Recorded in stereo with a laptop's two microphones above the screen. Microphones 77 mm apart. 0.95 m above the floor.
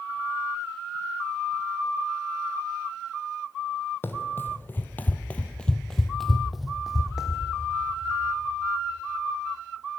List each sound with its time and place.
4.0 s running footsteps: 30° left (ahead or behind), 1.4 m; by 7.4 s 10° right (ahead or behind), 2 m